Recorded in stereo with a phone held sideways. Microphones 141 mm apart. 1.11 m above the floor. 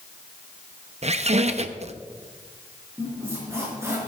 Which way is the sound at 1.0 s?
50° right (ahead or behind).